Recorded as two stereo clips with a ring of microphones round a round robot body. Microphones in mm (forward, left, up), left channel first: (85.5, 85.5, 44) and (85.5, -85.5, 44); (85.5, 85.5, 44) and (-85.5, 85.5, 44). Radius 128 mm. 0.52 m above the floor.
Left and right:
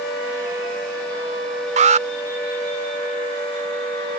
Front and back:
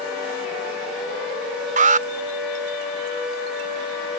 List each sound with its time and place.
1.8 s an alarm: 135° right